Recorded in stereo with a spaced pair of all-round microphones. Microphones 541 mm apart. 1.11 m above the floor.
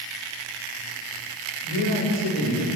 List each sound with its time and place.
1.6 s a man speaking: 80° left, 5.5 m